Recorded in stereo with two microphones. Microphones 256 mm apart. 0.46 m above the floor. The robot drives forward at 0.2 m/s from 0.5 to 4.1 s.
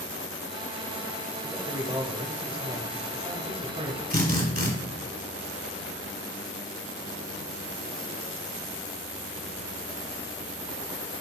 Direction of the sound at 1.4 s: 20° right (ahead or behind).